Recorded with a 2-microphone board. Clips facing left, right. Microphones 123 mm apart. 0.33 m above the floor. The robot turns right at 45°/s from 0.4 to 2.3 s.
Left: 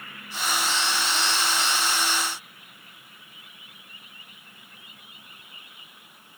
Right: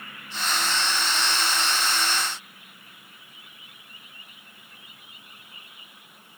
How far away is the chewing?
No chewing in this recording.